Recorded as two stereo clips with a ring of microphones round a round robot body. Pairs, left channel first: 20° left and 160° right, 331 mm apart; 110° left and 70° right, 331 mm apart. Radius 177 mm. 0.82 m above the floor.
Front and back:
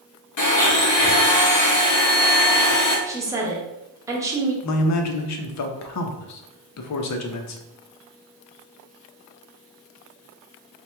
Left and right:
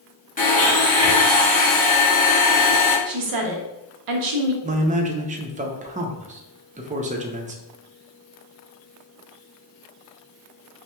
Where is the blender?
50° left, 1.4 m.